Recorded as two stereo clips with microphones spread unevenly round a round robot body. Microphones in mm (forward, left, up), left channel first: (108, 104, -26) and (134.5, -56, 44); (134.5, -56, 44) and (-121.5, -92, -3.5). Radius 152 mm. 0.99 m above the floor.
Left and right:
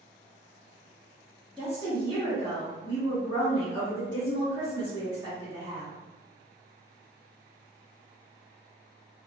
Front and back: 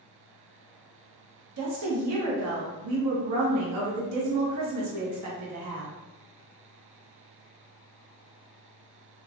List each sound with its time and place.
1.6 s a woman speaking: 175° left, 0.8 m